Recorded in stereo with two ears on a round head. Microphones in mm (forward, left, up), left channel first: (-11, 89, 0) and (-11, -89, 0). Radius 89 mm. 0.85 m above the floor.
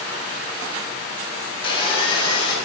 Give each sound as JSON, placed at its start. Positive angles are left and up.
{"t": 1.6, "sound": "sawing", "side_deg": 25, "distance_m": 2.5}